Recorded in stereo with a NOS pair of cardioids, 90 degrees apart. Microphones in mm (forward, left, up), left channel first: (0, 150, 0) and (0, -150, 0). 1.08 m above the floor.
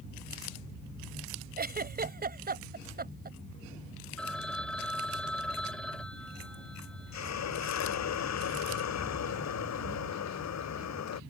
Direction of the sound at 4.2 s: 5° left.